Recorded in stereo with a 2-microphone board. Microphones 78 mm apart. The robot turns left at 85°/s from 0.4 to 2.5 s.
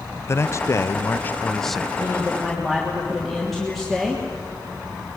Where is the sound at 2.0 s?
45° left, 3 m; by 4.2 s 5° left, 3 m.